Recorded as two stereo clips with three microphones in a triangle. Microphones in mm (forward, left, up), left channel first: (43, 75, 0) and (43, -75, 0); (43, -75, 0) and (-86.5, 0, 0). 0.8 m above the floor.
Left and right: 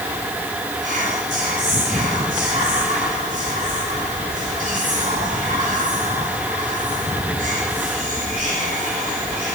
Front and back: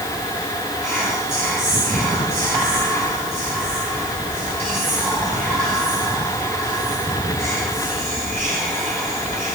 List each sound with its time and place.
0.8 s whispering: 105° right, 5 m